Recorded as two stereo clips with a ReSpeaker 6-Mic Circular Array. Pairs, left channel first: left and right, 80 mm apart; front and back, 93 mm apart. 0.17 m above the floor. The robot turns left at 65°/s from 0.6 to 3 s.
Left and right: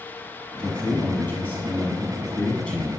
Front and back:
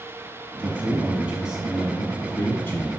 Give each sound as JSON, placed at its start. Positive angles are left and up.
{"t": 0.6, "sound": "a man speaking", "azimuth_deg": 160, "distance_m": 1.2}